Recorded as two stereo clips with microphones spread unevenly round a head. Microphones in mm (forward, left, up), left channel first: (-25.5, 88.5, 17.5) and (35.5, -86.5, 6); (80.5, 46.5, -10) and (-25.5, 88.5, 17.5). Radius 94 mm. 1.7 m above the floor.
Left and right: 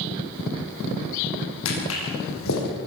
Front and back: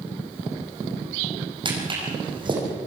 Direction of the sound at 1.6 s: 120° left.